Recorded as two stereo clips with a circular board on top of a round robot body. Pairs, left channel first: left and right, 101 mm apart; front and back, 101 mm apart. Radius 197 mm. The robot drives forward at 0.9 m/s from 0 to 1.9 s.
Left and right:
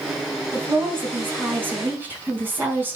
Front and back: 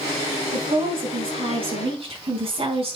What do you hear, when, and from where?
0.5 s a woman speaking: 155° right, 5 m; by 3.0 s 160° right, 6 m